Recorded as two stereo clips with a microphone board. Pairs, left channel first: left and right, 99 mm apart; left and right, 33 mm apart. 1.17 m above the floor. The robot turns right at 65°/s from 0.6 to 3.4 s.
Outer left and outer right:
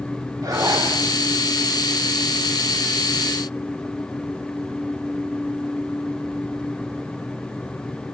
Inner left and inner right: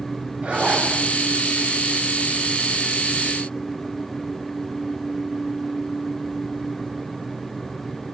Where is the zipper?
45° right (ahead or behind), 8.5 m; by 0.9 s 60° right (ahead or behind), 8.5 m.